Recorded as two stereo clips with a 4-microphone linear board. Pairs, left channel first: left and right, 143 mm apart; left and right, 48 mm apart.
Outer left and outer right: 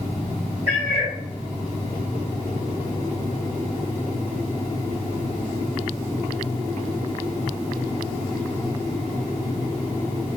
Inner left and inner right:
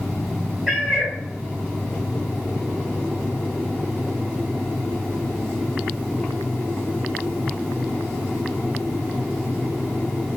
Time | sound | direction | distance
0.7 | a cat meowing | 10° right (ahead or behind) | 1.6 m